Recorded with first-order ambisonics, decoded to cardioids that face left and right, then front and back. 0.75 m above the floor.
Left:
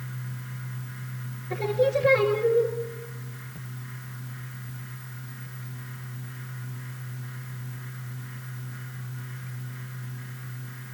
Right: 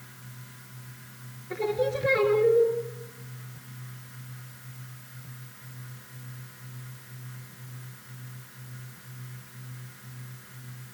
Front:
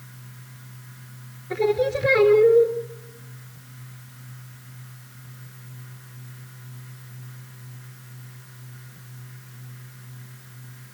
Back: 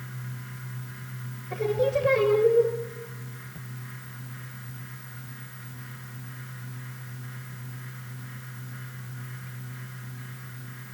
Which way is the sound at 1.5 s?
10° right.